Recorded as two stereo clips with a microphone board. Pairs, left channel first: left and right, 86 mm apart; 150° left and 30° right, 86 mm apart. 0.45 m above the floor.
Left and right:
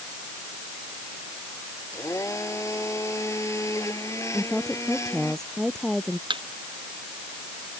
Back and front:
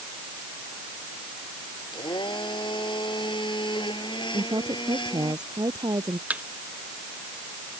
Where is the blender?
140° left.